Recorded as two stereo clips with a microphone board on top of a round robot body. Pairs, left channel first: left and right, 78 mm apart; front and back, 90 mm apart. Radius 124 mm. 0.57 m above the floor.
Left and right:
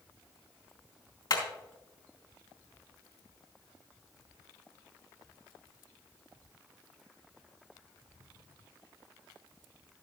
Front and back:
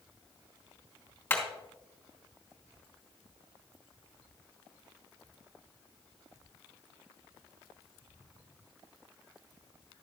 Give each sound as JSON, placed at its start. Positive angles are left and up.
{"t": 1.3, "sound": "hammering", "azimuth_deg": 70, "distance_m": 3.5}